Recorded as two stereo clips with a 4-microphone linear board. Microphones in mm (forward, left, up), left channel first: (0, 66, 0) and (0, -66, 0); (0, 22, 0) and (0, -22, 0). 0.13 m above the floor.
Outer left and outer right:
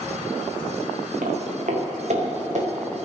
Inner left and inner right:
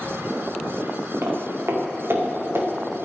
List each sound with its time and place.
1.2 s footsteps: 65° right (ahead or behind), 4.5 m; by 2.7 s 55° right (ahead or behind), 5 m